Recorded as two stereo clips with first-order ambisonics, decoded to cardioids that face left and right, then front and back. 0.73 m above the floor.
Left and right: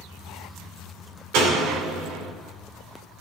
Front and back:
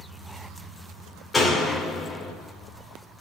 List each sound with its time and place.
1.3 s a door slam: 80° right, 1.9 m